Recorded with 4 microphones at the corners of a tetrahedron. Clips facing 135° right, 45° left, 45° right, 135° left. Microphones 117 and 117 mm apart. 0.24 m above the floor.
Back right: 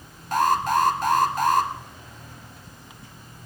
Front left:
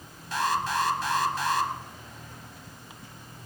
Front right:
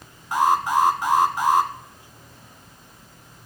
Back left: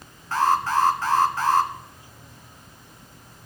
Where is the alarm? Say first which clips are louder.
Back right 7 dB, front right 1 dB; 115° right, 1.2 m.